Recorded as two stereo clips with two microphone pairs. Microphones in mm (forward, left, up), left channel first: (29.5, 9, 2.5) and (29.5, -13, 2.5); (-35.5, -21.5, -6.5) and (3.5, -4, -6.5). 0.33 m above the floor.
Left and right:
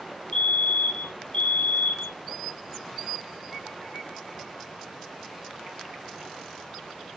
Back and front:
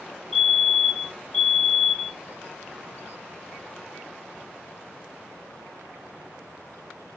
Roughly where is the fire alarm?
Behind left.